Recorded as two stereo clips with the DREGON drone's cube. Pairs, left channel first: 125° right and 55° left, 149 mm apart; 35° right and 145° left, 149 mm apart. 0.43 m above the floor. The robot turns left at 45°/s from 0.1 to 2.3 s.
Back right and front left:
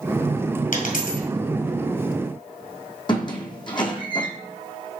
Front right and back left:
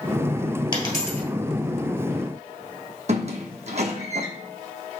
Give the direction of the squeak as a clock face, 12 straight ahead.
6 o'clock.